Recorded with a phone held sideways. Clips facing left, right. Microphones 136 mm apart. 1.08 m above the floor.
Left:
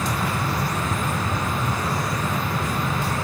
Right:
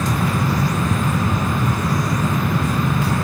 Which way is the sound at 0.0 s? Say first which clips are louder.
Right 5 dB; 65° right (ahead or behind).